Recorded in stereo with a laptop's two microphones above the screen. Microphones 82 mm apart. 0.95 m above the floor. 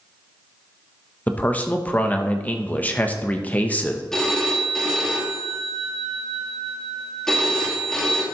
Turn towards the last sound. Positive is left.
turn(degrees=10)  # may be behind; listen again after turning